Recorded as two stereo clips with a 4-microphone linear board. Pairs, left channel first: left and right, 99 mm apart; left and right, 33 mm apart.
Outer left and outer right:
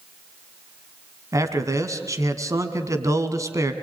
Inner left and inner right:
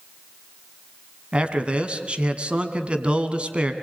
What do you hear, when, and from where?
1.3 s a man speaking: 35° right (ahead or behind), 2.5 m